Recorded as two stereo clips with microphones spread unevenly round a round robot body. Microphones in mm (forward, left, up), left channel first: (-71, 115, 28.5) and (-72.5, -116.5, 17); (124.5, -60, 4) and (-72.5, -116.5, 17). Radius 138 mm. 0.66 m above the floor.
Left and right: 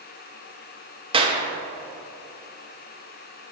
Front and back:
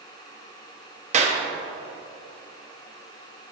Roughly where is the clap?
Behind right.